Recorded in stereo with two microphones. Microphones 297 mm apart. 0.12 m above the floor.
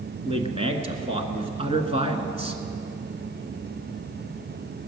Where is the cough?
No cough in this recording.